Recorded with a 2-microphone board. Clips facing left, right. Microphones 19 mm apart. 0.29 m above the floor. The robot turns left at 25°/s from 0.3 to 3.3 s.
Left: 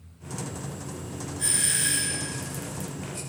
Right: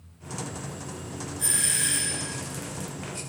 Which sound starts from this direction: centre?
A doorbell, at 1.4 s.